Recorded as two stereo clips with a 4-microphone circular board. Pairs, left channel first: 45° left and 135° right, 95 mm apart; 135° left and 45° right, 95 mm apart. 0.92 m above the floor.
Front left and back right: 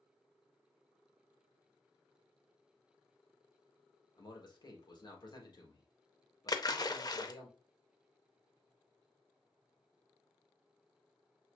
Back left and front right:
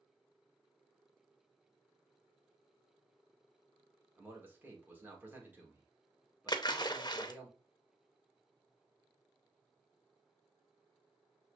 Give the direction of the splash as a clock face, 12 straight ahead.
9 o'clock.